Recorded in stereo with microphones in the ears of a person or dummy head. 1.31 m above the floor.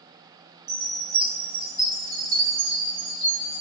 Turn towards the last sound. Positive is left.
turn(degrees=-20)  # may be behind; listen again after turning